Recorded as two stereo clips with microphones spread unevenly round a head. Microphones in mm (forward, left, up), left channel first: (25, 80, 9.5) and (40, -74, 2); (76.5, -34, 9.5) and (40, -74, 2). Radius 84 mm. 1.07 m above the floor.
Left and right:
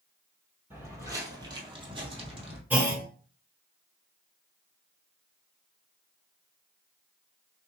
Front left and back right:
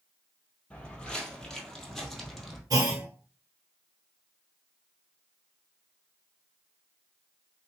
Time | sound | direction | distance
0.7 | footsteps | 10° right | 1.7 m
2.7 | a clunk | 165° right | 0.7 m